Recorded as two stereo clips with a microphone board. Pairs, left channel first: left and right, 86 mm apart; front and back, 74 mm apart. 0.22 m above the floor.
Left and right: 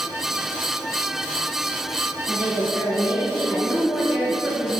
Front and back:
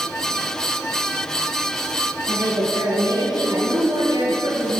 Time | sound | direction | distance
2.3 | a woman speaking | straight behind | 2.5 m